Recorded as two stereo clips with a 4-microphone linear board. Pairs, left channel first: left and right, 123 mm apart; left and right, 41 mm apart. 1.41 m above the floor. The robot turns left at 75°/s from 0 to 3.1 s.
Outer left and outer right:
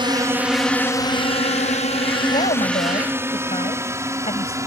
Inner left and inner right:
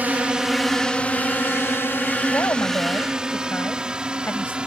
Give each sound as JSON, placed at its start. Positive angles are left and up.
{"t": 0.0, "sound": "a drone", "side_deg": -40}
{"t": 2.3, "sound": "a woman speaking", "azimuth_deg": 120}